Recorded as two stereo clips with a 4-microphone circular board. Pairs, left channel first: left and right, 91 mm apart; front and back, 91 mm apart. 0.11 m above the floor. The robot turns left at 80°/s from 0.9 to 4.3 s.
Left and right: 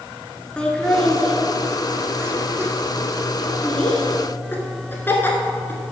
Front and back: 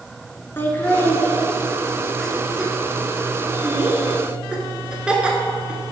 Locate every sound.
0.6 s laughter: 25° left, 1.2 m; by 5.8 s 115° left, 1.2 m